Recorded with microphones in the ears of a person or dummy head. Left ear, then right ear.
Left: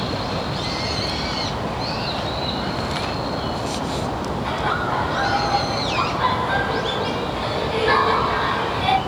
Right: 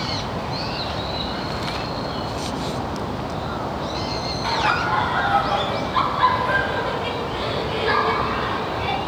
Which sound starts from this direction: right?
Laughter, at 4.4 s.